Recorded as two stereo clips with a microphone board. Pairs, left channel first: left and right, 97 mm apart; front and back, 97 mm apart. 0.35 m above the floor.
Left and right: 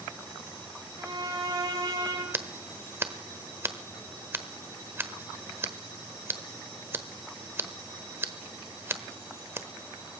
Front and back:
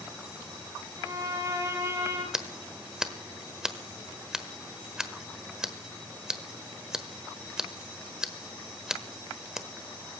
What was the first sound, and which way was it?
A violin, 125° right.